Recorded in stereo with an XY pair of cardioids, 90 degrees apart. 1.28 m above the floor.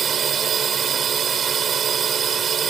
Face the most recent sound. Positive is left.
turn(degrees=-55)